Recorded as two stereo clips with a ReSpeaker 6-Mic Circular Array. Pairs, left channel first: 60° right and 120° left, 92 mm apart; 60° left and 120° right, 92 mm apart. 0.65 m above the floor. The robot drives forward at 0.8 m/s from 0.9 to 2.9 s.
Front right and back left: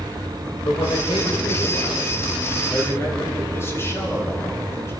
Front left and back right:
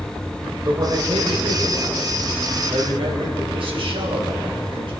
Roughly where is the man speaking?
Right.